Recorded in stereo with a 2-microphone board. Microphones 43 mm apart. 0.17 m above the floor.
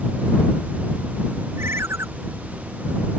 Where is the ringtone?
75° right (ahead or behind).